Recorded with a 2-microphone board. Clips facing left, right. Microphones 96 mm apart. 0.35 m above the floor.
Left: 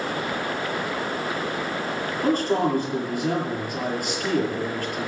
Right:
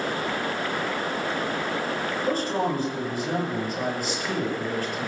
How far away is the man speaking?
About 7.5 m.